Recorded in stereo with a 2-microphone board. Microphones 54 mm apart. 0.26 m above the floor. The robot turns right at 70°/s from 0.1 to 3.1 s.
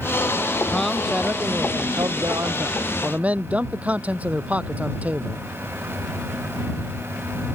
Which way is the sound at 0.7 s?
165° left.